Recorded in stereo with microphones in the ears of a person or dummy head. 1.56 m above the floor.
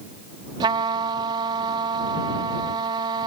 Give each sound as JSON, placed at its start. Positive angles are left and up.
{"t": 0.6, "sound": "a trumpet", "side_deg": -20}